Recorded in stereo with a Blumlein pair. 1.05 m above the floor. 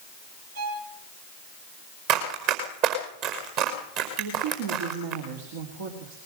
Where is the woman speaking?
60° right, 3.5 m.